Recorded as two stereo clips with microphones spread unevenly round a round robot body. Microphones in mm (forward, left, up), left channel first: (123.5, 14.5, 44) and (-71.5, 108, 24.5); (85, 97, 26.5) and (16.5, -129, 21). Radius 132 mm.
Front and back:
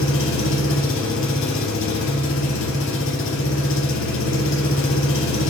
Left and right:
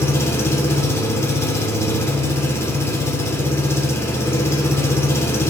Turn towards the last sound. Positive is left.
turn(degrees=-5)